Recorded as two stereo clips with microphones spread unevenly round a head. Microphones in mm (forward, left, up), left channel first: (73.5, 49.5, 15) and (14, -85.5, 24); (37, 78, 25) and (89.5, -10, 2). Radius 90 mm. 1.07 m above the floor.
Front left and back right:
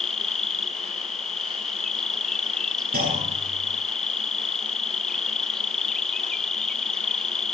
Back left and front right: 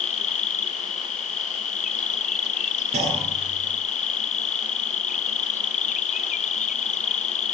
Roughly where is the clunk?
Right.